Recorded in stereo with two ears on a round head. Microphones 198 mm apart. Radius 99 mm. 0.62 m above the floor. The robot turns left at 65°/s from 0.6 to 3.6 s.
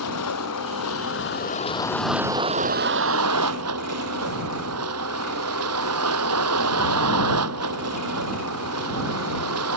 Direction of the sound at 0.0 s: 95° left.